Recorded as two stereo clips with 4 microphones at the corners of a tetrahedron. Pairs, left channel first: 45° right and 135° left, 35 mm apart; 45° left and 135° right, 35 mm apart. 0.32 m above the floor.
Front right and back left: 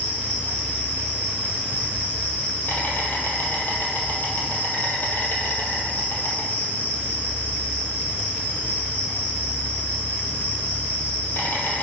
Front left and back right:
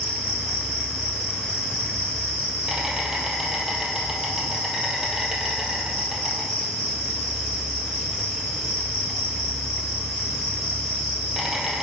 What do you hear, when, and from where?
0.0 s an insect: 65° right, 1.6 m